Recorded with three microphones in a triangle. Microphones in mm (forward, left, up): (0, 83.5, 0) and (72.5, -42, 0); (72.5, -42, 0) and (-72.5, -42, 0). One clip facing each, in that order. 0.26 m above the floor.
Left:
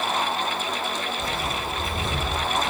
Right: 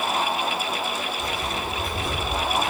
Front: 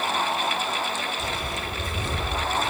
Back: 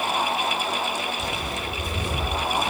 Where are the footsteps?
Straight behind, 7.5 m; by 2.7 s 170° right, 8.5 m.